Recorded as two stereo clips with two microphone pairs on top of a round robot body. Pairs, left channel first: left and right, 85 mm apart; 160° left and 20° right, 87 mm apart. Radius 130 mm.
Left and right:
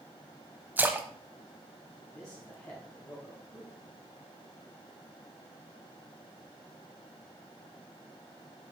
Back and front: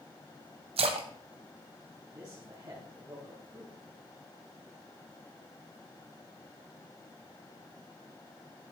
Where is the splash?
15° right, 0.8 m.